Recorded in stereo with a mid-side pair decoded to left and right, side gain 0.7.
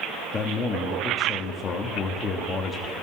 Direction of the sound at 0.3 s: 30° left.